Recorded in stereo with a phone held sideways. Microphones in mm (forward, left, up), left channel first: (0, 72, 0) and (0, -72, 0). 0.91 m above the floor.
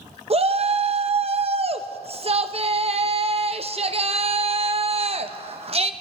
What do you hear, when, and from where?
0.3 s a shout: 45° right (ahead or behind), 0.7 m